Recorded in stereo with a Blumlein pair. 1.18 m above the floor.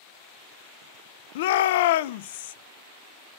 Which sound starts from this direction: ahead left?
A shout, at 1.4 s.